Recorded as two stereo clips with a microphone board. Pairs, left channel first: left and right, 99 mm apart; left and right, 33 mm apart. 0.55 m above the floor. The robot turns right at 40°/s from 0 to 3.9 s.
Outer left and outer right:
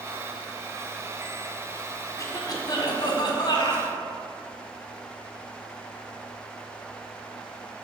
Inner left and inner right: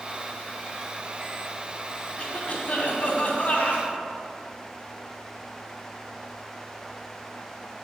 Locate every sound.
2.2 s a cough: 55° left, 1.5 m; by 3.9 s 120° left, 1.5 m